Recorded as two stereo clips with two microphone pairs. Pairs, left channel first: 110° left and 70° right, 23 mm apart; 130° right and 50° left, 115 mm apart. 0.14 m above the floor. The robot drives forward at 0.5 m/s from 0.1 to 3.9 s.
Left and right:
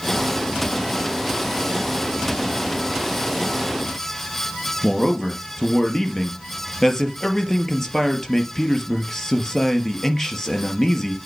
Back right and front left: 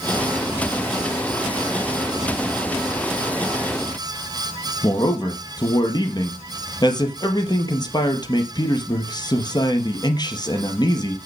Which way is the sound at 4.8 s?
Straight behind.